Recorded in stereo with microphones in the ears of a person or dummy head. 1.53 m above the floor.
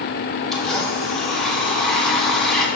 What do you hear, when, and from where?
0.5 s a blender: centre (ahead or behind), 2 m